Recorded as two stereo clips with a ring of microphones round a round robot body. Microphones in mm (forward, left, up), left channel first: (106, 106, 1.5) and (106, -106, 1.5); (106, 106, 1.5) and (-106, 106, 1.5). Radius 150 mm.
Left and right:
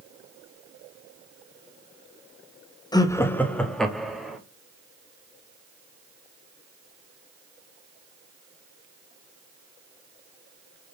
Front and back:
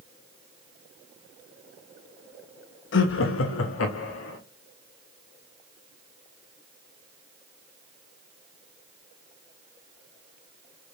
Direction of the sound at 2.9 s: 20° left.